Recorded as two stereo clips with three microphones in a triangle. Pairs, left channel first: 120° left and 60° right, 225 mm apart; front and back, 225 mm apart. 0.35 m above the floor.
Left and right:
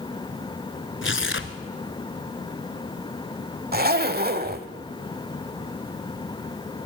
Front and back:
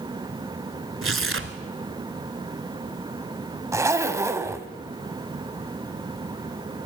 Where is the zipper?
105° right, 1.0 m.